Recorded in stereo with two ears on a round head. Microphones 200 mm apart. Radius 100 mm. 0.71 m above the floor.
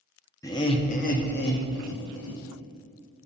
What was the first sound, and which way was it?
Laughter, 15° left (ahead or behind).